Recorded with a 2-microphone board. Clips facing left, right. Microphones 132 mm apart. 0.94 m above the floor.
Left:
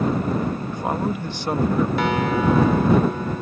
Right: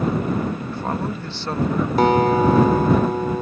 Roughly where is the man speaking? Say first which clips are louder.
Left 1 dB; centre.